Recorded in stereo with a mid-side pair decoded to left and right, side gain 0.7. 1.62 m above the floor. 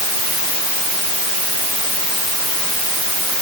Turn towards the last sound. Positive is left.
No sound to turn to.